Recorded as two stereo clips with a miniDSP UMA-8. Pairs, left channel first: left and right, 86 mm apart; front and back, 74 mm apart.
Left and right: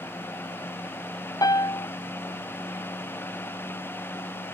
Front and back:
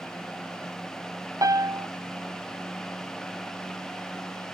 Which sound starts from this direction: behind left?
A piano, at 1.4 s.